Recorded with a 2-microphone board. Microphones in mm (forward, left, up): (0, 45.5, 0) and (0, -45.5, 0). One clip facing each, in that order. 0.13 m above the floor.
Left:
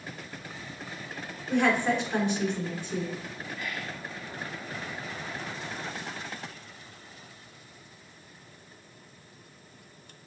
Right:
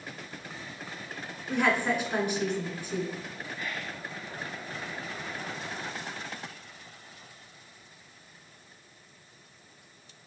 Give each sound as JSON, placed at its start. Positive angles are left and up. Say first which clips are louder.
{"t": 1.5, "sound": "a woman speaking", "louder": "left 2 dB", "side_deg": -10, "distance_m": 1.0}
{"t": 3.5, "sound": "whispering", "louder": "even", "side_deg": -30, "distance_m": 1.3}